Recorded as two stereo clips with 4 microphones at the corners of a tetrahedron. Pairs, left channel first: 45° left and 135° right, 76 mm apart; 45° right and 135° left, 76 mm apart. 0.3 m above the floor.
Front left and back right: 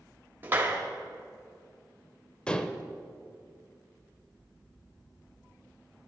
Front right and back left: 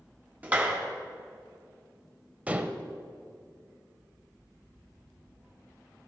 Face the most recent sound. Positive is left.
turn(degrees=105)